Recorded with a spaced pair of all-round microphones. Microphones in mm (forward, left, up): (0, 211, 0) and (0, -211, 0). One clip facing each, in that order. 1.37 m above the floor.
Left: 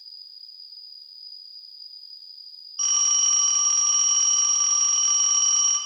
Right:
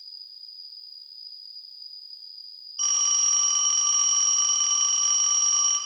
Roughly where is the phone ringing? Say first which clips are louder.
Even; left.